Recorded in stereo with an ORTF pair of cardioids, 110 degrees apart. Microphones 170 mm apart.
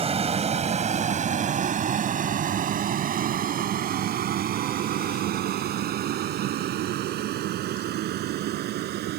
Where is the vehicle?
35° right; by 9.2 s 75° right.